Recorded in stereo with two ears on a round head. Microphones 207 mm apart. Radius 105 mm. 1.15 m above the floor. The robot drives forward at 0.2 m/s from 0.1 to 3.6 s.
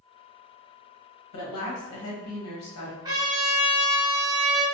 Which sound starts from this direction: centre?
A trumpet, at 3.0 s.